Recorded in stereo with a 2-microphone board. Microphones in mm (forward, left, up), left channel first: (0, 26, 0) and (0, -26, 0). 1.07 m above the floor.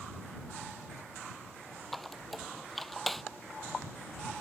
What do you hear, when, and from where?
1.9 s a squeak: centre (ahead or behind)